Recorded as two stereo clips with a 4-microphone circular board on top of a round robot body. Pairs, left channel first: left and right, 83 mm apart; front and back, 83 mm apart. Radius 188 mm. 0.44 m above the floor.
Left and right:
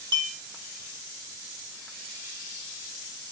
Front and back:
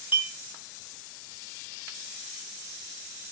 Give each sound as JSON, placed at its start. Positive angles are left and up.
{"t": 0.1, "sound": "a clink", "azimuth_deg": -115, "distance_m": 2.0}